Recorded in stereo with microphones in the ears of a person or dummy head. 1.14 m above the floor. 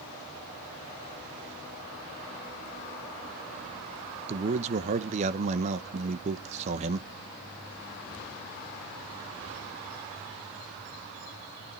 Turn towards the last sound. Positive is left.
turn(degrees=-40)  # may be behind; listen again after turning